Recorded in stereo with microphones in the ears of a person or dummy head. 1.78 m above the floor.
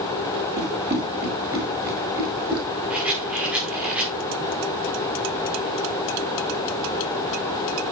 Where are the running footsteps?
15° right (ahead or behind), 6 m; by 2.7 s 10° right (ahead or behind), 7.5 m.